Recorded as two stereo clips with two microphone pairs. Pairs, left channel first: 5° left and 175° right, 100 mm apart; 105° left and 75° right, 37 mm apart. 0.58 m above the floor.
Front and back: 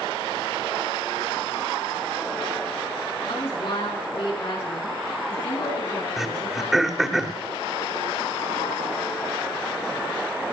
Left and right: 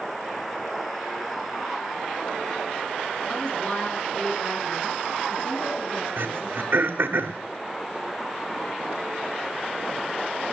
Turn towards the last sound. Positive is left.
turn(degrees=-90)